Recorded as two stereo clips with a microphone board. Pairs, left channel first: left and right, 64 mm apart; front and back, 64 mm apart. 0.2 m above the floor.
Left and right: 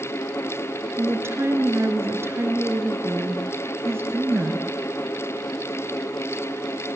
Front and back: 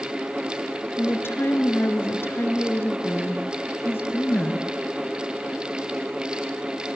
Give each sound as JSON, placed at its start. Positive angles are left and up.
{"t": 1.0, "sound": "a woman speaking", "azimuth_deg": -45, "distance_m": 2.5}